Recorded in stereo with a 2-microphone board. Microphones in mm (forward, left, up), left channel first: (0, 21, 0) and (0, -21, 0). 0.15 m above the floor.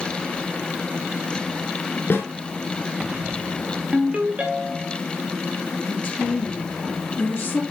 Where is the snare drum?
55° left (ahead or behind), 1.8 m.